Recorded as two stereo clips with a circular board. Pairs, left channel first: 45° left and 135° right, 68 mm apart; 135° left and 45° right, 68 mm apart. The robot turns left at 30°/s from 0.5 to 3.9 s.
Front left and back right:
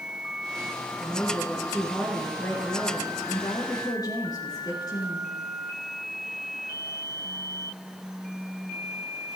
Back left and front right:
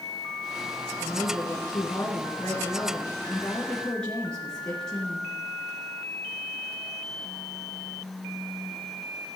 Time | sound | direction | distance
1.0 | a woman speaking | 145° left | 3 m